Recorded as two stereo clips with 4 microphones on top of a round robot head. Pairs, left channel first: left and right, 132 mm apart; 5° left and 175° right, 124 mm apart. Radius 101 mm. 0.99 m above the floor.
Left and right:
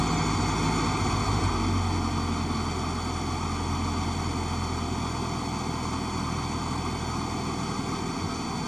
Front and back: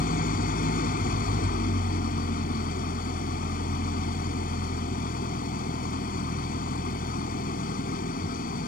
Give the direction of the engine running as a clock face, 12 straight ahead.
12 o'clock.